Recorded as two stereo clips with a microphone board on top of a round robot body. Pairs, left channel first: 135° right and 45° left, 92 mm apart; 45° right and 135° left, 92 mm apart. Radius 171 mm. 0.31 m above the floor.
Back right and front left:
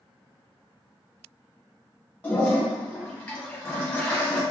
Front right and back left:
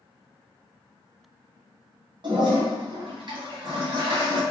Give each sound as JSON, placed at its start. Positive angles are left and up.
{"t": 2.2, "sound": "a toilet flushing", "azimuth_deg": 150, "distance_m": 1.3}